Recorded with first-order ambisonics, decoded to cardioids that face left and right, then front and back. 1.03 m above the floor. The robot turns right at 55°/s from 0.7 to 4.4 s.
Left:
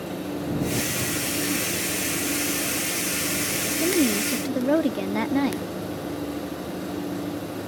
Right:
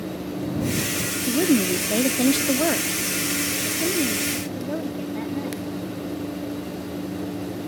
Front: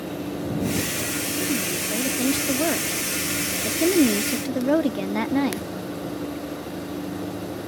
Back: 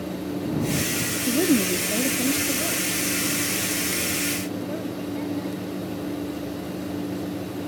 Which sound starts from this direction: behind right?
A woman speaking, at 1.3 s.